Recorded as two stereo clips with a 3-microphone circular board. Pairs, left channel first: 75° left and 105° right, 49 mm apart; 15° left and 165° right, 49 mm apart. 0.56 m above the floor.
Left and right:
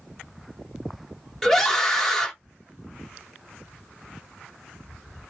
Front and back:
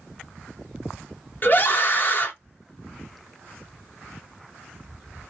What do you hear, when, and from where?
1.4 s a scream: 5° right, 1.4 m